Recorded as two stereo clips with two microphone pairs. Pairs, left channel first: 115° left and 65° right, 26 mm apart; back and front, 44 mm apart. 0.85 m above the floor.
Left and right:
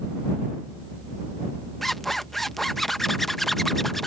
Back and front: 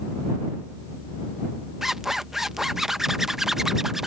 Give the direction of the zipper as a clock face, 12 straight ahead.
10 o'clock.